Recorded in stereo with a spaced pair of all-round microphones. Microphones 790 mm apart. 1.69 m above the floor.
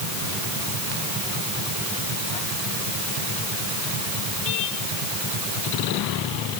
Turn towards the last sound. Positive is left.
No sound to turn to.